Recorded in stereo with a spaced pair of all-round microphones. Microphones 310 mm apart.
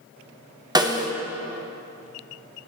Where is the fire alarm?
I don't hear a fire alarm.